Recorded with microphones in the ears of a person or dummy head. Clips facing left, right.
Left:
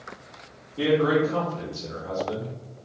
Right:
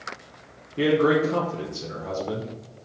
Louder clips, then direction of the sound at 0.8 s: Right 1 dB; 30° right (ahead or behind).